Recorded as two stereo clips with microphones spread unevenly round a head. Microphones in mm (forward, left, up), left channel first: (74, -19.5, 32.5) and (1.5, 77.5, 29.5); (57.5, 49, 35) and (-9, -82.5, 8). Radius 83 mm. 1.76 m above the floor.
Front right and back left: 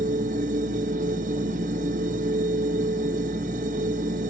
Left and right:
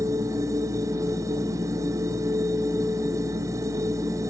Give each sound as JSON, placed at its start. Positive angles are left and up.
{"t": 0.0, "sound": "a machine running", "azimuth_deg": 170, "distance_m": 1.2}